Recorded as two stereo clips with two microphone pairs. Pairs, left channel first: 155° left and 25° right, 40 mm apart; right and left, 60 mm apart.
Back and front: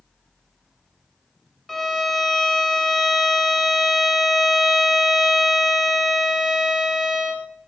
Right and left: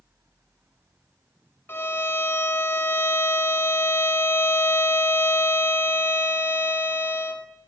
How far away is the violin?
About 0.8 m.